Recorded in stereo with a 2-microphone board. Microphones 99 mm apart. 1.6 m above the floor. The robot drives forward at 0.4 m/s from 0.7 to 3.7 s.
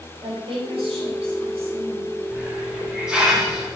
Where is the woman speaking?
85° right, 3 m; by 2.1 s 80° right, 3 m.